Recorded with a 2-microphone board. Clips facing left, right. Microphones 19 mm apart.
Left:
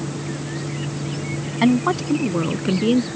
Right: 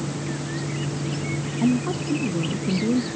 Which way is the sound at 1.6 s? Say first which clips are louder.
Left 5 dB; 65° left (ahead or behind).